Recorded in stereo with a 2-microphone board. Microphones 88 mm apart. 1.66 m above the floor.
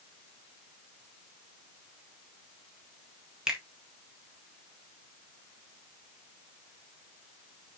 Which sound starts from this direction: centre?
A finger snap, at 3.5 s.